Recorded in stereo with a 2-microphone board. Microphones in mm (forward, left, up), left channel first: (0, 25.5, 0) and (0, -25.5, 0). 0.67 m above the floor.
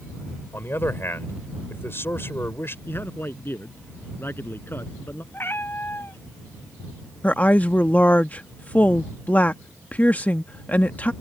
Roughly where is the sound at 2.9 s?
Left.